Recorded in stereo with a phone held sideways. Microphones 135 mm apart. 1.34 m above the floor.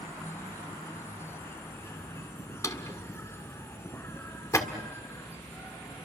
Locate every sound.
0.0 s an insect: 20° left (ahead or behind), 2.5 m
2.6 s a drawer: 20° left (ahead or behind), 1.7 m